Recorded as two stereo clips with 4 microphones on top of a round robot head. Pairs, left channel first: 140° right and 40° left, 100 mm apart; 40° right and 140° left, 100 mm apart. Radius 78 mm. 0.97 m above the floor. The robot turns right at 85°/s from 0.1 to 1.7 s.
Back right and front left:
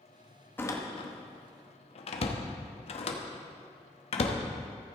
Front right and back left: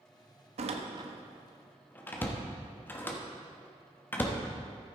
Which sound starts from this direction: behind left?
A door slam, at 0.6 s.